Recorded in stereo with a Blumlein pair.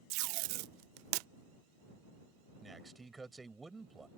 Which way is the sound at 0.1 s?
45° right.